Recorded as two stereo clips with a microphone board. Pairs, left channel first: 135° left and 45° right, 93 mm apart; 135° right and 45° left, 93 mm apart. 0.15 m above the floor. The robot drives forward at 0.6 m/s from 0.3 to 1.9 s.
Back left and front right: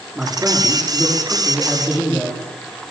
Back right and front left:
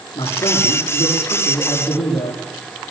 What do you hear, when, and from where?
0.1 s a man speaking: 120° right, 9 m; by 2.4 s 125° right, 9.5 m